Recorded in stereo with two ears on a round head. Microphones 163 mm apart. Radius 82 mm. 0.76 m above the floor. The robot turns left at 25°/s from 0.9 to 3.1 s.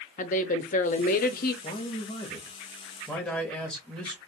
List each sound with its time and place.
0.2 s a woman speaking: 45° left (ahead or behind), 0.8 m; by 1.5 s 55° left (ahead or behind), 0.8 m
1.6 s a man speaking: 45° left, 1.1 m; by 4.3 s 10° left, 1.1 m